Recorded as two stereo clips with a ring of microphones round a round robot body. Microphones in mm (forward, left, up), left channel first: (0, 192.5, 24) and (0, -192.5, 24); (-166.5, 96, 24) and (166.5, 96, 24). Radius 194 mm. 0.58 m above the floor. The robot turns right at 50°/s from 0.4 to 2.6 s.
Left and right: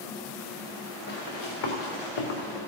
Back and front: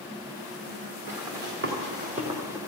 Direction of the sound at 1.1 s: 25° left.